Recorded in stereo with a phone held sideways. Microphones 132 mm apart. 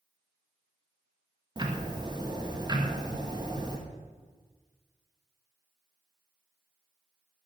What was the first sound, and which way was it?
Ticking, 35° right (ahead or behind).